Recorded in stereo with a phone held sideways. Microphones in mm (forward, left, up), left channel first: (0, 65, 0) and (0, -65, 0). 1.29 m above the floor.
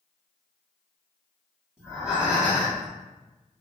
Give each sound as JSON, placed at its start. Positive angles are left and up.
{"t": 1.8, "sound": "breathing", "side_deg": -5, "distance_m": 1.5}